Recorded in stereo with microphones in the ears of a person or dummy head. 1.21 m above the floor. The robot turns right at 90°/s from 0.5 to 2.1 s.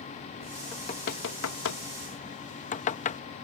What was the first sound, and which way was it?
Knocking, 20° left (ahead or behind).